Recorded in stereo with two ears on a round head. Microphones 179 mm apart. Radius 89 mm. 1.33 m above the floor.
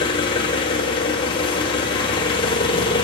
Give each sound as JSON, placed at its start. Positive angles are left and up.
{"t": 0.0, "sound": "an engine running", "side_deg": 25, "distance_m": 2.5}